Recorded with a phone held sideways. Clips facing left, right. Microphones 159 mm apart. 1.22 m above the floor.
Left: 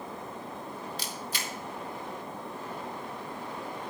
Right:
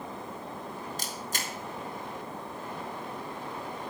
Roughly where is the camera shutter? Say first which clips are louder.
Even; right.